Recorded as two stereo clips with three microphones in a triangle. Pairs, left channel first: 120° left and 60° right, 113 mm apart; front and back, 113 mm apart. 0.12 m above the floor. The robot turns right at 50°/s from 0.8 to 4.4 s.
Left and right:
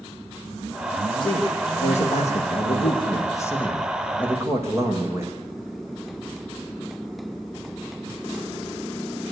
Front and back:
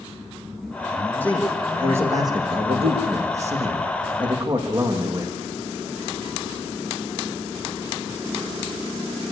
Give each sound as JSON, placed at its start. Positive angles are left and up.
{"t": 1.2, "sound": "a man speaking", "azimuth_deg": 75, "distance_m": 6.0}